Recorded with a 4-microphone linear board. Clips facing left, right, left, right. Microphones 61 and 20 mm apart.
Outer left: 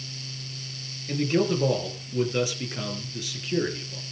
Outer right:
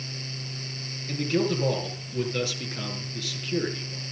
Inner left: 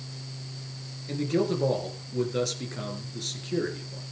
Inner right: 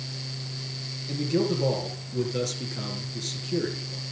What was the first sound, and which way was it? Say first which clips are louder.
A man speaking: outer left 2 dB, inner right 1 dB; 10° left (ahead or behind).